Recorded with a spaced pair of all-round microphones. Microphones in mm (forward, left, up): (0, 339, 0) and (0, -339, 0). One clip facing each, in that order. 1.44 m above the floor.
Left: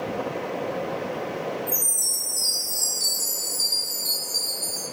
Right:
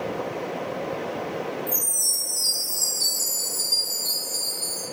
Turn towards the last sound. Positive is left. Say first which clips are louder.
# even
turn(degrees=-40)  # may be behind; listen again after turning